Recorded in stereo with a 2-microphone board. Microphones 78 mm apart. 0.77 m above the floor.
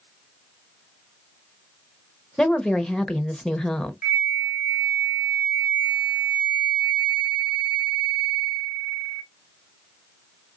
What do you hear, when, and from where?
2.4 s a woman speaking: 5° left (ahead or behind), 0.7 m
4.0 s a flute: 15° right (ahead or behind), 1.4 m